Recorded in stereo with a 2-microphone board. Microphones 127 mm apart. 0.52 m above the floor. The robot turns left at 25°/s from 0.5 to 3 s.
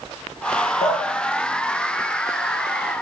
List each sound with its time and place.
0.8 s dripping: 60° left (ahead or behind), 0.5 m; by 2.9 s 40° left (ahead or behind), 0.5 m